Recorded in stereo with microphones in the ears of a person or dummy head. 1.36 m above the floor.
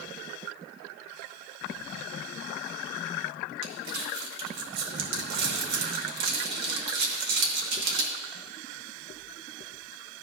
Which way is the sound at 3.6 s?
65° right (ahead or behind).